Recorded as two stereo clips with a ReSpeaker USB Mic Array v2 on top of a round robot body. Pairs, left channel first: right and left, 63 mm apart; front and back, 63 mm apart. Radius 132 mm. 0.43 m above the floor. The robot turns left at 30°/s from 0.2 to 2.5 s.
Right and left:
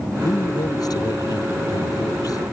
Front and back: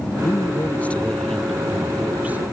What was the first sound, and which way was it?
A man speaking, 50° right.